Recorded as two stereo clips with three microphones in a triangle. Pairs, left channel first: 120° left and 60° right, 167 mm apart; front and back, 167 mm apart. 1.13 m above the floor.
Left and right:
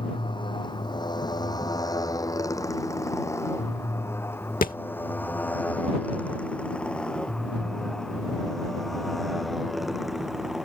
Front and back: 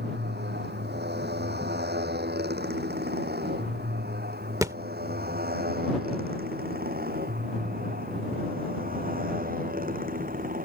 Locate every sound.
0.0 s a motorcycle: straight behind; by 10.7 s 150° right
4.6 s a thud: 115° left